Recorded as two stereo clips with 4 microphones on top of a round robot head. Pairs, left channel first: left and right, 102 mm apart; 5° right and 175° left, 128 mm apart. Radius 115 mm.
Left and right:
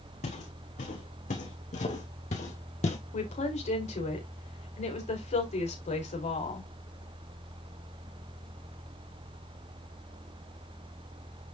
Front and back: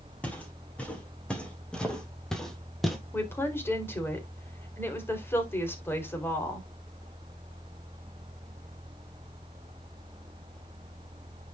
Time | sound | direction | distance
0.2 | footsteps | 75° left | 4 m
3.1 | a woman speaking | 70° left | 3.5 m